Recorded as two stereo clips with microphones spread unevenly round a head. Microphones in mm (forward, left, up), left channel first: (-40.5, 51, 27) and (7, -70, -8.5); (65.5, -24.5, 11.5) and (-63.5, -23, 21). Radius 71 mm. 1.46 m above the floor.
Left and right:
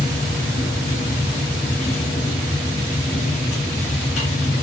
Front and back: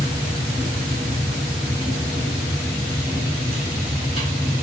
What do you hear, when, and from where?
0.0 s a machine running: 135° left, 1.0 m